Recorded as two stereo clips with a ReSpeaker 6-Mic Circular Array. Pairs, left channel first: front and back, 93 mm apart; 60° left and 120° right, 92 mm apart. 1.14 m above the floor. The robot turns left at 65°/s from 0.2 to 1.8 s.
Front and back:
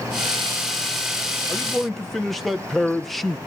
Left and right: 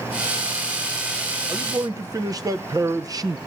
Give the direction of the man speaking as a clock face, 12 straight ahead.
2 o'clock.